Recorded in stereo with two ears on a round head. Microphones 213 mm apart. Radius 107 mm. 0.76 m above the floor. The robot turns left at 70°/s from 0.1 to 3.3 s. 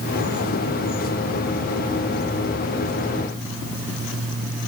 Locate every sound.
Only background noise.